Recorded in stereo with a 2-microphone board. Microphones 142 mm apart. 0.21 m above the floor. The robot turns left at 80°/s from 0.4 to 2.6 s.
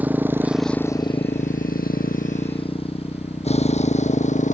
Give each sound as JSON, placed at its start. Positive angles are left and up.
{"t": 0.0, "sound": "a motorcycle", "side_deg": -10}